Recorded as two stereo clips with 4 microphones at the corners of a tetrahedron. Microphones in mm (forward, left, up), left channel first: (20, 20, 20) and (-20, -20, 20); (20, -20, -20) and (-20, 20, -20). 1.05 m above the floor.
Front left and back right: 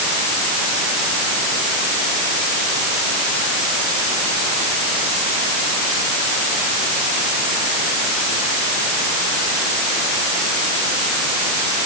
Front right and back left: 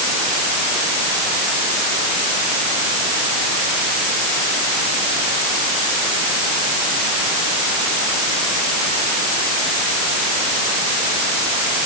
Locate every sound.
Only background noise.